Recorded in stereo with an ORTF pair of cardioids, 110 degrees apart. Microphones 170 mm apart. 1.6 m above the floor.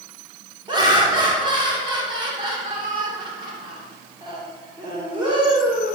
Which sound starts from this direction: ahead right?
Laughter, at 0.7 s.